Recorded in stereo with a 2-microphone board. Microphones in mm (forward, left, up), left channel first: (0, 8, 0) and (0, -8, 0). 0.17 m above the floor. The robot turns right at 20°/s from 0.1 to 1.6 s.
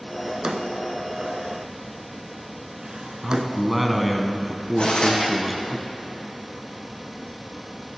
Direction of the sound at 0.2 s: 55° right (ahead or behind).